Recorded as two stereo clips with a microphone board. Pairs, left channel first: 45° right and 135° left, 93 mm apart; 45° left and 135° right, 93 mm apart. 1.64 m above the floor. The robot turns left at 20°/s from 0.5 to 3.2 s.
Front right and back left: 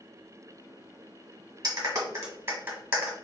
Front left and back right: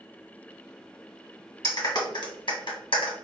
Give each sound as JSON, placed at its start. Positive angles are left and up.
{"t": 1.6, "sound": "a clap", "azimuth_deg": 85, "distance_m": 1.5}